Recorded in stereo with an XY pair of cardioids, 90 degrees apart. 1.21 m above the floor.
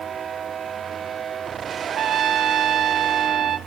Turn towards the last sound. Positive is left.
turn(degrees=-60)